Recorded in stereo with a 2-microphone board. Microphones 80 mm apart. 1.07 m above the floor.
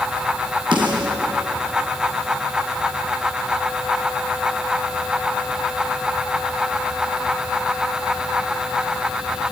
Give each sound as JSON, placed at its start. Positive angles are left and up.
{"t": 0.7, "sound": "a snare drum", "side_deg": -80, "distance_m": 4.5}